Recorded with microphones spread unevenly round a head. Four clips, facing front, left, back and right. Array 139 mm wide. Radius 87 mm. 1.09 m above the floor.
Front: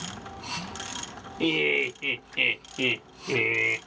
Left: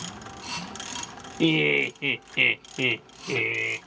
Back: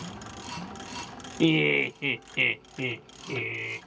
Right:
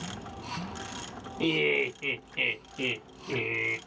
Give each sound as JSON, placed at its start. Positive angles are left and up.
{"t": 1.4, "sound": "laughter", "azimuth_deg": 145, "distance_m": 0.9}